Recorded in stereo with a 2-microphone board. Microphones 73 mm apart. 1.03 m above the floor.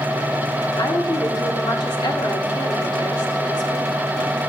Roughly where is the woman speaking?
Left.